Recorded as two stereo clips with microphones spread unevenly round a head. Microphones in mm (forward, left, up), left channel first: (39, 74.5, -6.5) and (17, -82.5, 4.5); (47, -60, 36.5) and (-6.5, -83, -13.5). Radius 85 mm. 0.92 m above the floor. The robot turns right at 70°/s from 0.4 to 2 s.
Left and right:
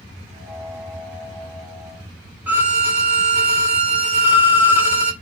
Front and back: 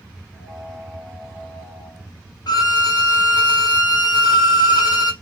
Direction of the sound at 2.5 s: 20° right.